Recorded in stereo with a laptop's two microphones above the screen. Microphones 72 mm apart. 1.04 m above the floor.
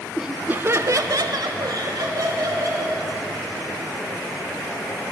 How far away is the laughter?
About 0.5 m.